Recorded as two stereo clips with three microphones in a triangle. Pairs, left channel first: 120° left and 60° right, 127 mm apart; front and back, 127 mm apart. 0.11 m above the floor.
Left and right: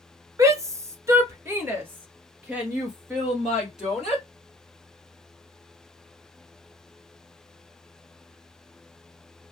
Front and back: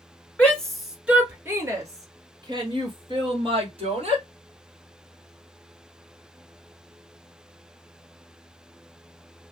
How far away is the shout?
About 1.2 m.